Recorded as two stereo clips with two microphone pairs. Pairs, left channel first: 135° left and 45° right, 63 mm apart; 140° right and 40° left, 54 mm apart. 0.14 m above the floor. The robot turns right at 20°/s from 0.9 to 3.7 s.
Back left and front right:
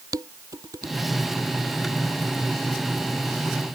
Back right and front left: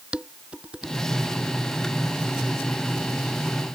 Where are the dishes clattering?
30° right.